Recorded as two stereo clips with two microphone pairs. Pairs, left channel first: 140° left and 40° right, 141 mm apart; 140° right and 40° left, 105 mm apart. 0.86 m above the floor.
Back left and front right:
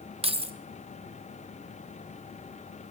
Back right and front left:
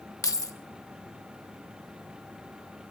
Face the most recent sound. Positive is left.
turn(degrees=-85)